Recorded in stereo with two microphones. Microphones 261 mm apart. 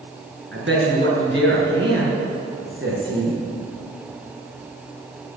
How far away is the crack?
I don't hear a crack.